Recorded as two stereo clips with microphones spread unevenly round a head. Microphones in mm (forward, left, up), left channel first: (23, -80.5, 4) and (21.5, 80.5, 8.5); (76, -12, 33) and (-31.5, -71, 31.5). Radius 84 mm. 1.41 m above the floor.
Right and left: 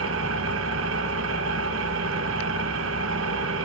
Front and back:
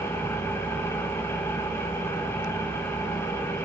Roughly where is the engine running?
Left.